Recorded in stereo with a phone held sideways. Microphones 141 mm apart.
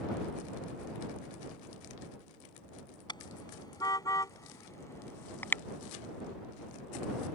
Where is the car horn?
30° left (ahead or behind); by 5.6 s 15° left (ahead or behind).